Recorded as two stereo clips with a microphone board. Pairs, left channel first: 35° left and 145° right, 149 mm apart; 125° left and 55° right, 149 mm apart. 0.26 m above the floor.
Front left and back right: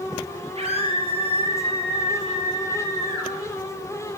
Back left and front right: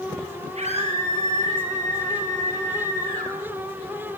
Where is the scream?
100° right, 6 m; by 3.3 s 85° right, 7 m.